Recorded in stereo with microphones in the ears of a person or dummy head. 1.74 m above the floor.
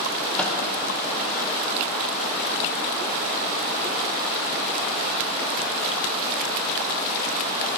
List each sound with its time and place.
0.4 s a microwave: 10° left (ahead or behind), 1.2 m